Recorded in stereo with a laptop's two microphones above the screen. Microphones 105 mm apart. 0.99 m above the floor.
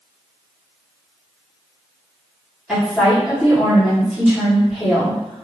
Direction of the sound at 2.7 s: 5° right (ahead or behind).